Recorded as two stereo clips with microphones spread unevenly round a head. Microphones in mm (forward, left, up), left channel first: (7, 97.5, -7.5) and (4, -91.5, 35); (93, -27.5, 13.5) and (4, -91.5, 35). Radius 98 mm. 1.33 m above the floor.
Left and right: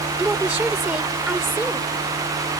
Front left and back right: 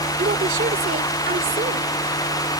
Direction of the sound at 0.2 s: 175° right.